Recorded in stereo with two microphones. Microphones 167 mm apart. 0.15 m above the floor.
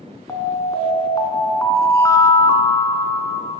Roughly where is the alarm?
Centre.